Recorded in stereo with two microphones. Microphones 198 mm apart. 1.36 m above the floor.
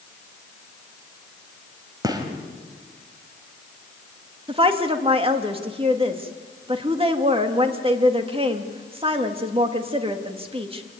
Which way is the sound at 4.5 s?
30° right (ahead or behind).